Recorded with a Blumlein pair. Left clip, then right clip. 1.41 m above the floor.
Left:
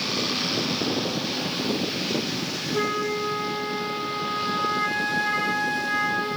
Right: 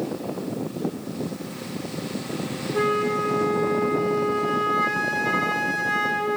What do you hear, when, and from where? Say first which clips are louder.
2.7 s a flute: right 4 dB; 5° right, 1.0 m